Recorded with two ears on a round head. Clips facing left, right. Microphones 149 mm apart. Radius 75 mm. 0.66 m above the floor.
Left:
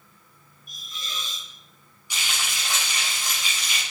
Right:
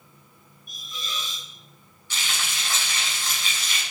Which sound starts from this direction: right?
A hiss, at 0.7 s.